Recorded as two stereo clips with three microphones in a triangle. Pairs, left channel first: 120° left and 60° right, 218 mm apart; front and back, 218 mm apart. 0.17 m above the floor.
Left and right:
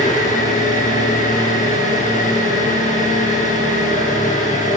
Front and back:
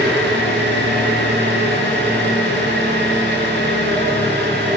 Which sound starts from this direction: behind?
An engine running, at 0.0 s.